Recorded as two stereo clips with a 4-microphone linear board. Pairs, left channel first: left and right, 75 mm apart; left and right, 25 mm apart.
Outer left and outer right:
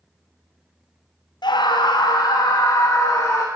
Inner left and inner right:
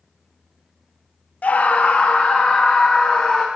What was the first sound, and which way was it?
A scream, 80° left.